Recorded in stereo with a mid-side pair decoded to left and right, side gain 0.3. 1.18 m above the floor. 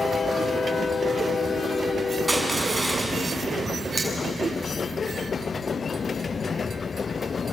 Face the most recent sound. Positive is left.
turn(degrees=-10)